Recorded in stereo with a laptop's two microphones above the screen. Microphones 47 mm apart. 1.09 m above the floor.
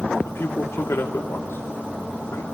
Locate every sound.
0.2 s a man speaking: 70° left (ahead or behind), 2.5 m